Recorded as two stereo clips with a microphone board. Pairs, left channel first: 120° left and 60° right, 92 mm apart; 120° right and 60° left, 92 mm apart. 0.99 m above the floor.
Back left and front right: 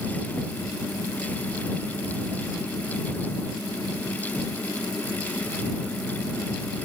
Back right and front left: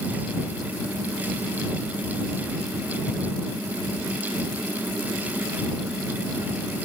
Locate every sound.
Only background noise.